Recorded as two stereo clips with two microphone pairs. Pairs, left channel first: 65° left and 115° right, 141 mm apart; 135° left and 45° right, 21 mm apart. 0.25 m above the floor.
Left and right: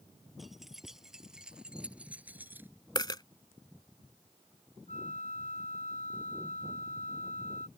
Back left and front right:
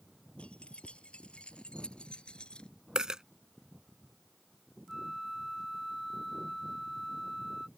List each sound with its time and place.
0.4 s keys jangling: 155° left; by 2.7 s 170° left
3.0 s a dropped coin: 5° left
4.9 s a flute: 45° left